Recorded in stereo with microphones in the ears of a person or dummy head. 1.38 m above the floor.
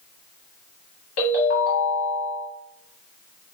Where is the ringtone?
55° left (ahead or behind), 1.3 m.